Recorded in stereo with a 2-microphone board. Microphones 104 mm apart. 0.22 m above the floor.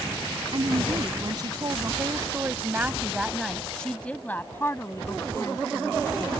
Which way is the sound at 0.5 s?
55° right (ahead or behind).